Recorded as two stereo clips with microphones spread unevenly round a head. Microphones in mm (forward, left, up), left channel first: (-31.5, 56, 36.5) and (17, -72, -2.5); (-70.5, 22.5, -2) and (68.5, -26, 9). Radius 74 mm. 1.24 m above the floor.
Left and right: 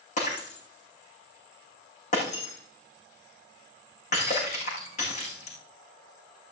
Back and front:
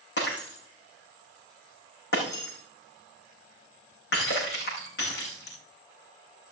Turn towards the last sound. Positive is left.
turn(degrees=140)